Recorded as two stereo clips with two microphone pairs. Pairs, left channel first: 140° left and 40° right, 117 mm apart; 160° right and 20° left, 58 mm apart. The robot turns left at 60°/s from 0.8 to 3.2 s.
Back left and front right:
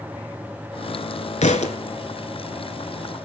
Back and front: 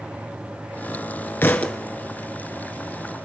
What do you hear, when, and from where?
1.4 s a thud: 150° left, 1.0 m; by 1.8 s 130° left, 1.0 m